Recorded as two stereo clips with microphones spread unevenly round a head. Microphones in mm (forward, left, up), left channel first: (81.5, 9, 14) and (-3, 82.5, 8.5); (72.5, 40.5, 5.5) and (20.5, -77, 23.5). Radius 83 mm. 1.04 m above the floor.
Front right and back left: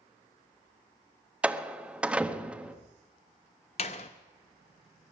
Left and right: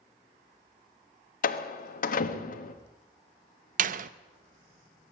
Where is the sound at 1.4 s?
60° left, 1.4 m.